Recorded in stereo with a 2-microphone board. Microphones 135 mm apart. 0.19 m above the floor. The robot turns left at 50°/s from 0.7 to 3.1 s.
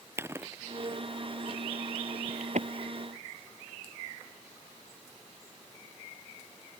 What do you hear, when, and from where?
0.2 s chewing: 20° right (ahead or behind); by 2.7 s 60° right (ahead or behind)